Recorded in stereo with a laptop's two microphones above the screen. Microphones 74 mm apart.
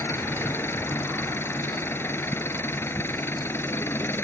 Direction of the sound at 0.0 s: 30° left (ahead or behind).